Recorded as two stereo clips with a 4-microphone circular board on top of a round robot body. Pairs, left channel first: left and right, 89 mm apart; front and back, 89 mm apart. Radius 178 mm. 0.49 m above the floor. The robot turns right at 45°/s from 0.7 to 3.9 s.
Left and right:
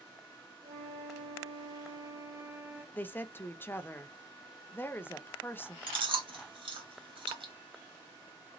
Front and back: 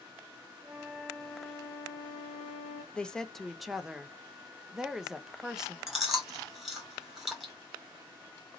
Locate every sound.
0.6 s a flute: 100° right, 0.7 m; by 2.8 s 5° right, 0.7 m
2.9 s a woman speaking: 60° left, 0.8 m; by 5.8 s 105° left, 0.8 m
5.9 s chewing: 95° right, 2.0 m